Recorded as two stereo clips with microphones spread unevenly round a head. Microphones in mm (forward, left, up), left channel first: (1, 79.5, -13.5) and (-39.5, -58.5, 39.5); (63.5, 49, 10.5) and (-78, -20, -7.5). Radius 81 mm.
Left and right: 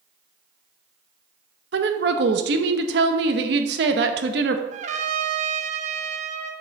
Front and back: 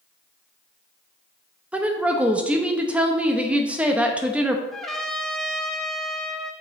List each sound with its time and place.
1.7 s a woman speaking: 70° right, 0.7 m
4.7 s a trumpet: 75° right, 0.7 m